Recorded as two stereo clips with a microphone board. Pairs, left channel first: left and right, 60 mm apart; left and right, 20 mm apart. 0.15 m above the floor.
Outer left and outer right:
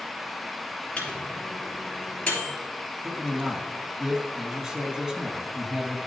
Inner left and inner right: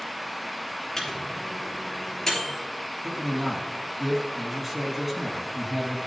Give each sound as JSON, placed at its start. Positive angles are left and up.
{"t": 1.0, "sound": "a microwave", "side_deg": 25, "distance_m": 3.0}
{"t": 3.0, "sound": "a man speaking", "side_deg": -10, "distance_m": 1.3}